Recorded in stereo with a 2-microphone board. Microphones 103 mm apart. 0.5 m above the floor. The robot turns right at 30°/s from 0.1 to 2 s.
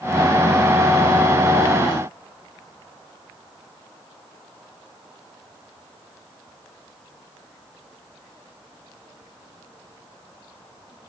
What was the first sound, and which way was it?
Only background noise.